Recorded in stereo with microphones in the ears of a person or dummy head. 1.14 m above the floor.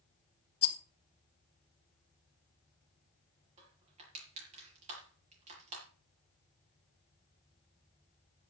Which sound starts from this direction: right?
Crushing, at 3.6 s.